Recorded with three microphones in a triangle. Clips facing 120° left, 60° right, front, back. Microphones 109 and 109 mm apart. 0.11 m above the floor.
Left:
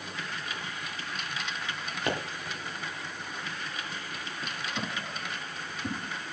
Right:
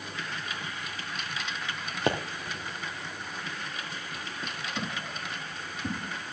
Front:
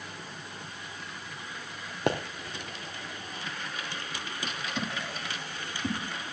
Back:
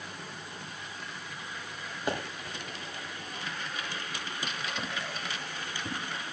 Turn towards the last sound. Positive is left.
turn(degrees=30)